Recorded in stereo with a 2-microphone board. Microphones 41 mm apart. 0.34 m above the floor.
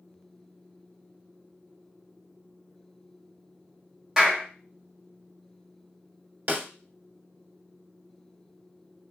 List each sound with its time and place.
4.2 s a clap: 10° right (ahead or behind), 1.3 m
6.5 s a snare drum: 40° right (ahead or behind), 0.5 m